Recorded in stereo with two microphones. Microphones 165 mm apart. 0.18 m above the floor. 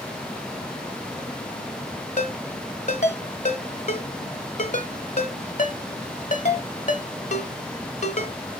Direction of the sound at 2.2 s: 50° left (ahead or behind).